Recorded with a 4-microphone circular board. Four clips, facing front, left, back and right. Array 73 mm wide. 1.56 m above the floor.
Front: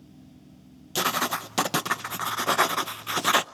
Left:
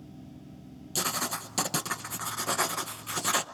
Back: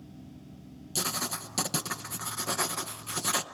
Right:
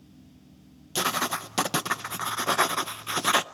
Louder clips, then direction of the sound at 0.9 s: Right 6 dB, front 9 dB; 30° right.